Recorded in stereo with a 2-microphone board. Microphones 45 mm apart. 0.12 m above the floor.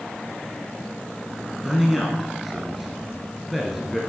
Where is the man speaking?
5° right (ahead or behind), 1.4 m.